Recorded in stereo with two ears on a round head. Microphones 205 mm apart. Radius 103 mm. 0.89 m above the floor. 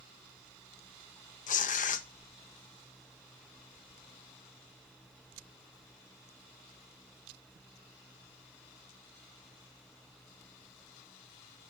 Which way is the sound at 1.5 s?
35° left (ahead or behind).